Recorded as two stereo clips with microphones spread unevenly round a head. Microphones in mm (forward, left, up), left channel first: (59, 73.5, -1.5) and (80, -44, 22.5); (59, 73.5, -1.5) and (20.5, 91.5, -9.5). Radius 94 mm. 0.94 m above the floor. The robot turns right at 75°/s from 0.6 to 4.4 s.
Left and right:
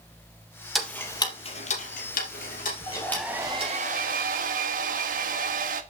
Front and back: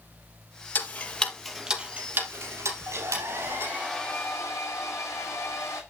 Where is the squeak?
No squeak in this recording.